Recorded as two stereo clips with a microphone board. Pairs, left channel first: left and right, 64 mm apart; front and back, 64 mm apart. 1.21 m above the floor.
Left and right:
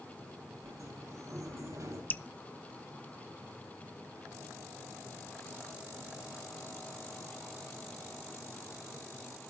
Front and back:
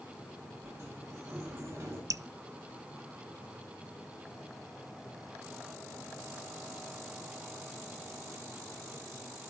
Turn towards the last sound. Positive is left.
turn(degrees=150)